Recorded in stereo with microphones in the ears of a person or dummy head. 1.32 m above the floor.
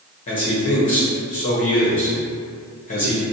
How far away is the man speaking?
About 0.8 m.